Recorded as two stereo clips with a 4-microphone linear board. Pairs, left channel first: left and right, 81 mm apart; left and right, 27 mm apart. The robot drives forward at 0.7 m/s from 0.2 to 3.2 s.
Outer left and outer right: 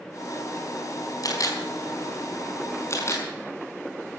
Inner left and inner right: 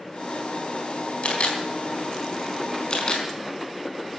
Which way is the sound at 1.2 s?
50° left (ahead or behind).